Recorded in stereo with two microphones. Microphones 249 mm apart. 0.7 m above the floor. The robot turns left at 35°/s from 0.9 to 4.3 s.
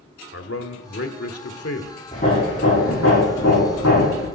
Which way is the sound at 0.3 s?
110° left.